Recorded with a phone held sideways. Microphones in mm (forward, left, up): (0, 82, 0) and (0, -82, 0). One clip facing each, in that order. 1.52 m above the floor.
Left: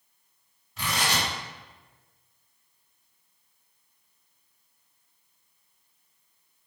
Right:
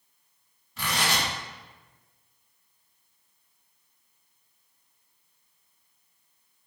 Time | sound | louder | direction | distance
0.8 | tearing paper | even | centre (ahead or behind) | 1.7 m